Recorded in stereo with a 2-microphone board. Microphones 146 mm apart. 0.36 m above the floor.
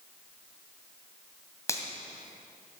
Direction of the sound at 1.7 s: 20° left (ahead or behind).